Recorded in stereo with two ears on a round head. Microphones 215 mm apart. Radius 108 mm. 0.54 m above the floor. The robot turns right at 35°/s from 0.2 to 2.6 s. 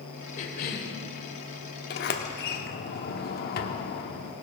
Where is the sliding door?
40° left (ahead or behind), 1.0 m.